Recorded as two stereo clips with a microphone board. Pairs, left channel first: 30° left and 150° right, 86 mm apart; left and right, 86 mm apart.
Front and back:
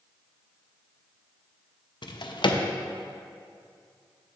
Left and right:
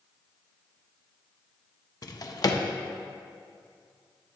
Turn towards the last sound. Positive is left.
turn(degrees=50)